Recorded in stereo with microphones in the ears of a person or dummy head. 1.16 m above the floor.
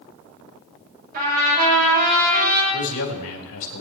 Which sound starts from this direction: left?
A man speaking, at 2.7 s.